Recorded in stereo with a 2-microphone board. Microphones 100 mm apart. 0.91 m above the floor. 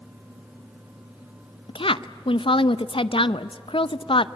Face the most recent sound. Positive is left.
turn(degrees=65)  # may be behind; listen again after turning